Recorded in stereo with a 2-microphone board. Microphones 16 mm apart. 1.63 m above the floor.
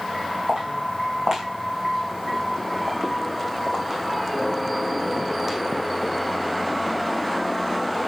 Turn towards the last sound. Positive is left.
turn(degrees=-15)  # may be behind; listen again after turning